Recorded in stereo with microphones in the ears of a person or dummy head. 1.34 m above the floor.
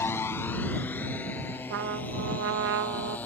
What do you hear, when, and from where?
0.0 s a motorcycle: 15° left (ahead or behind); by 3.3 s 10° left (ahead or behind)
1.7 s a trumpet: 65° right (ahead or behind)